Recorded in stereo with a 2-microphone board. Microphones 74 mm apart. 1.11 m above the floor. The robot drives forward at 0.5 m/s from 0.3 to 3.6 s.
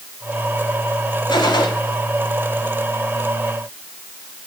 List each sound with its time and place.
1.3 s a gunshot: 75° left (ahead or behind), 2.5 m; by 1.7 s 70° left (ahead or behind), 3 m